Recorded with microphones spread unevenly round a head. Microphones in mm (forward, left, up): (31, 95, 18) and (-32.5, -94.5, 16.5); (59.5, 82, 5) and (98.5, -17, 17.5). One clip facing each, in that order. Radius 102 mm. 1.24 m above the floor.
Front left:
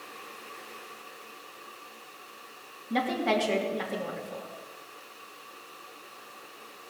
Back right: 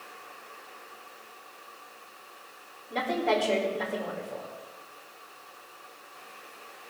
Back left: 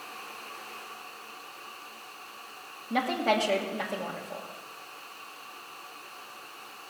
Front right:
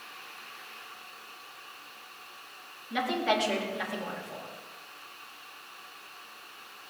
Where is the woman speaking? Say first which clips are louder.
Even, back left 2 dB; 75° left, 2.5 m.